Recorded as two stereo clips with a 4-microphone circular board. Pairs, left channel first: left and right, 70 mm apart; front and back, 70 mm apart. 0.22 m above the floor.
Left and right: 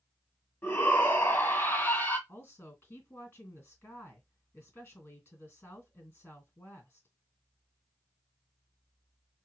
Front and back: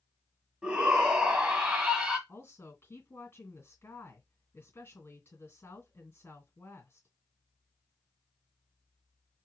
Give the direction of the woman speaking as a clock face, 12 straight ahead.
11 o'clock.